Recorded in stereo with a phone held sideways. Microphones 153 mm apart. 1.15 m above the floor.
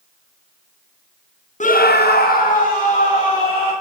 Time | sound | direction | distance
1.6 | a scream | 50° left (ahead or behind) | 0.8 m